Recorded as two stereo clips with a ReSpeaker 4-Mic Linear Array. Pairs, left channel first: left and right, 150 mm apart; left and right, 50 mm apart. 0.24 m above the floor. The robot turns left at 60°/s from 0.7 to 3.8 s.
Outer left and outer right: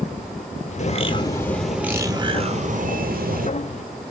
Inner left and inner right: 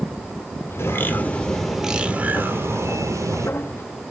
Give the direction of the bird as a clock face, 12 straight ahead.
10 o'clock.